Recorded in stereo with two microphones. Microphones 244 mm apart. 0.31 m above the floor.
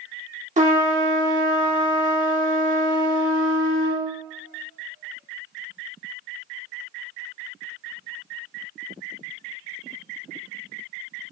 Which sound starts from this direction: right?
A trumpet, at 0.6 s.